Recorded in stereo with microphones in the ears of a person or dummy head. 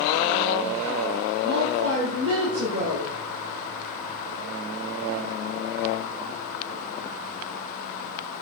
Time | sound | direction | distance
1.4 | a woman speaking | 85° right | 2.5 m